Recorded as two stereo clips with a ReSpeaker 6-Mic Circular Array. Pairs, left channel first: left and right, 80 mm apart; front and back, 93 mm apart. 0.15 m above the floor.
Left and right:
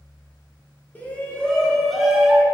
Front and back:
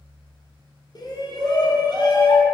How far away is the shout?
About 2.5 m.